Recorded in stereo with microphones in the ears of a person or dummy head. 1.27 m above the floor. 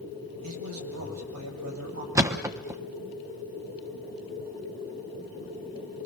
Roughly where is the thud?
Centre.